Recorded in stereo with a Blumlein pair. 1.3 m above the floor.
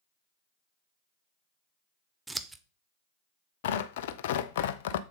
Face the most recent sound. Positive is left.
turn(degrees=55)